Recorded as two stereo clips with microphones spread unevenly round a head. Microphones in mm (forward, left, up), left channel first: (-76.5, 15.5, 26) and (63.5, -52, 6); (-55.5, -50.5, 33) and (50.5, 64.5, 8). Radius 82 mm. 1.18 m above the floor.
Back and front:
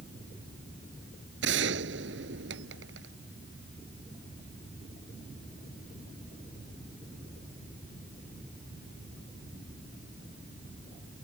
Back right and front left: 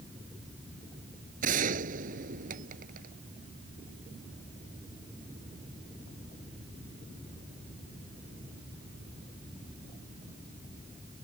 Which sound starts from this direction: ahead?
A gunshot, at 1.4 s.